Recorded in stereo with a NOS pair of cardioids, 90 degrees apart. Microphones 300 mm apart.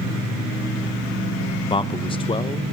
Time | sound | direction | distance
1.7 | a man speaking | 20° left | 0.8 m